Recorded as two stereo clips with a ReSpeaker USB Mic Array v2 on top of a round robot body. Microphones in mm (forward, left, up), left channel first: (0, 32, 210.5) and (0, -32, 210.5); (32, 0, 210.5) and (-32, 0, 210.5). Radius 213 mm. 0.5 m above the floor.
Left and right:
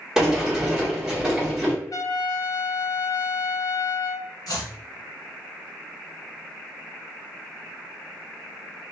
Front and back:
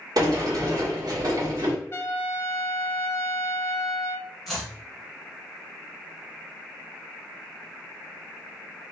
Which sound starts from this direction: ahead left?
A trumpet, at 1.9 s.